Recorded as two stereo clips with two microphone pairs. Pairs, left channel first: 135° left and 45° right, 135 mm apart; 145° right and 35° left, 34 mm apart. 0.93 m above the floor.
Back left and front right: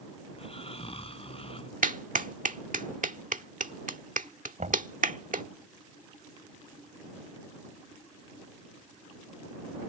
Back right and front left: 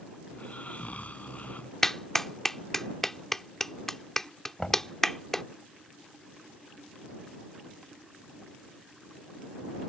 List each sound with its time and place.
0.3 s snoring: straight behind
1.8 s a clap: 60° right
4.6 s knocking: 70° right